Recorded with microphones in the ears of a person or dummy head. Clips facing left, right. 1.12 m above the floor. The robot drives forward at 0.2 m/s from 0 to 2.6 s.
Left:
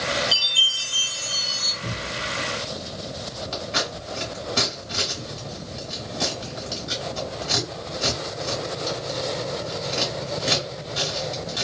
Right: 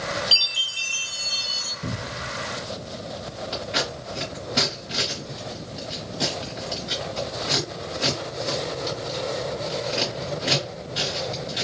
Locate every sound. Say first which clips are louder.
0.3 s a chime: left 3 dB; 55° right (ahead or behind), 1.8 m; by 1.7 s 50° right (ahead or behind), 2.0 m
1.8 s a cupboard door: even; 60° right (ahead or behind), 1.3 m
3.5 s scissors: right 1 dB; 10° right (ahead or behind), 1.3 m